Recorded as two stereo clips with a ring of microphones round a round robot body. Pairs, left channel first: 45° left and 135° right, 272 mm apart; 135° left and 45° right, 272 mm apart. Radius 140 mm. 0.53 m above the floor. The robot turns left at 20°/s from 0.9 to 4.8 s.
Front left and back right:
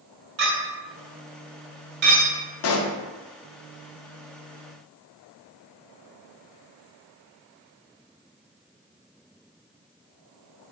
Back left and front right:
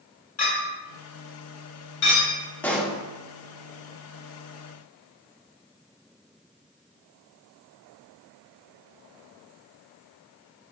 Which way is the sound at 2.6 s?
50° left.